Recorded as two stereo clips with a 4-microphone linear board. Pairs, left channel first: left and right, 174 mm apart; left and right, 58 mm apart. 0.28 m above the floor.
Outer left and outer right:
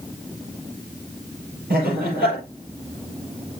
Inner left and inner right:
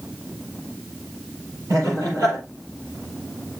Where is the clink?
I don't hear a clink.